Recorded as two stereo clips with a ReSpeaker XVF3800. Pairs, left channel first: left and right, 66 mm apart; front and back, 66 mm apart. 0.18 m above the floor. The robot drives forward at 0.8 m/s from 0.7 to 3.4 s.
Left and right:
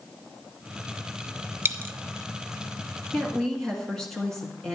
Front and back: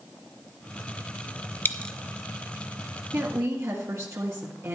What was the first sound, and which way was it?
A dropped coin, 45° right.